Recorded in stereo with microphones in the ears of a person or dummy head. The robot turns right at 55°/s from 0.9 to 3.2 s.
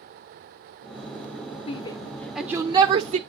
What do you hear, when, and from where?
1.7 s a shout: 30° left (ahead or behind), 0.6 m; by 3.2 s 45° right (ahead or behind), 0.6 m